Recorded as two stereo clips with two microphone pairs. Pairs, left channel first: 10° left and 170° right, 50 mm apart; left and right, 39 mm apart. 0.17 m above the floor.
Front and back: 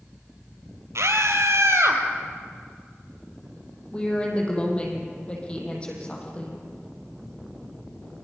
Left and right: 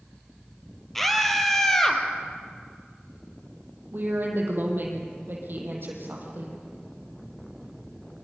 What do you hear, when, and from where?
0.9 s a scream: 175° left, 3.5 m; by 2.0 s 165° left, 4 m
3.9 s a woman speaking: 60° right, 6.5 m